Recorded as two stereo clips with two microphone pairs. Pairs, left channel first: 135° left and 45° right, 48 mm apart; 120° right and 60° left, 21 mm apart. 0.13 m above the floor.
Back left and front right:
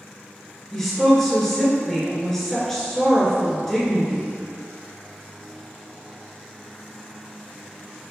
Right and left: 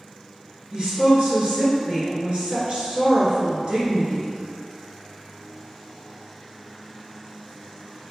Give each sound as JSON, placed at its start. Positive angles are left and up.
{"t": 0.7, "sound": "a woman speaking", "azimuth_deg": 55, "distance_m": 1.7}